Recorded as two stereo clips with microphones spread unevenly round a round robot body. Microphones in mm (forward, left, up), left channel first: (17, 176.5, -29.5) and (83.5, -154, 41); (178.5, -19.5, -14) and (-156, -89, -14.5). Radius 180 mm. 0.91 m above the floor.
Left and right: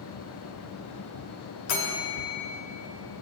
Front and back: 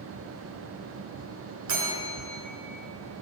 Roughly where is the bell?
Behind left.